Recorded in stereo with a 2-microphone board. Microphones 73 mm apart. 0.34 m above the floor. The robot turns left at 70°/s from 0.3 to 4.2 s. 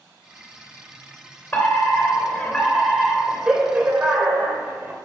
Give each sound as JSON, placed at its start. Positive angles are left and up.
{"t": 1.5, "sound": "a fire alarm", "side_deg": 25, "distance_m": 2.5}